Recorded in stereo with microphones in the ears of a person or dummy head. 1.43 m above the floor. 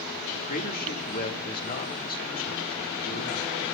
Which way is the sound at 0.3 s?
50° left (ahead or behind).